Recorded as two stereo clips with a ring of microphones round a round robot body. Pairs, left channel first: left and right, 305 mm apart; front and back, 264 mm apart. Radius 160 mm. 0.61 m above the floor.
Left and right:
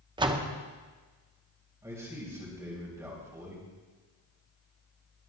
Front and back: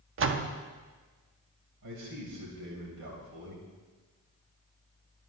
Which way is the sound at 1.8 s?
170° right.